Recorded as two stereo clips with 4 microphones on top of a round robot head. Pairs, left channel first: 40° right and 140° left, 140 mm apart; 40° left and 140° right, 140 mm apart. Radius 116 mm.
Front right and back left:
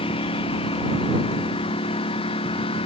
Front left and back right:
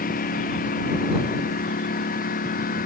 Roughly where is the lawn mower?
Ahead.